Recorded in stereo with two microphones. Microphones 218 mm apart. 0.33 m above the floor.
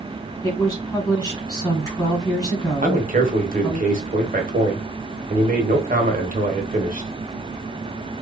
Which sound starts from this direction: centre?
A woman speaking, at 0.4 s.